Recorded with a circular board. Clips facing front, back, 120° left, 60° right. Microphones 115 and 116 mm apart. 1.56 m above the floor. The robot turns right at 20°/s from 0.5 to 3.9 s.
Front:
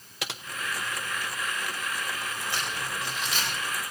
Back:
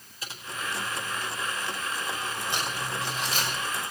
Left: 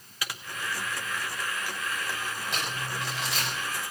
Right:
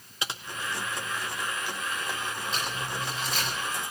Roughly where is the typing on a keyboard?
Ahead.